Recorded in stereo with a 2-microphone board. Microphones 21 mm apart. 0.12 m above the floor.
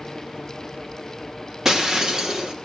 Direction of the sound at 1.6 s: 25° right (ahead or behind).